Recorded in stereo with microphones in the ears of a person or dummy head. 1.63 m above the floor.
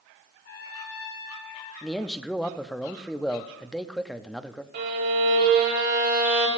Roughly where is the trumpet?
Left.